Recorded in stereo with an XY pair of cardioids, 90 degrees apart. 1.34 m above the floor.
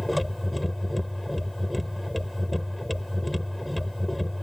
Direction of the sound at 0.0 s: 10° left.